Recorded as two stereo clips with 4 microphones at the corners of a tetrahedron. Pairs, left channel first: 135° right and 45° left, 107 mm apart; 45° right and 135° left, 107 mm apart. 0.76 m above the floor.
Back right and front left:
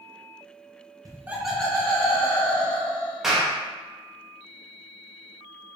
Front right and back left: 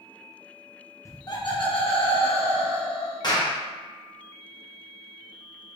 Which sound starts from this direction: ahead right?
A clap, at 3.2 s.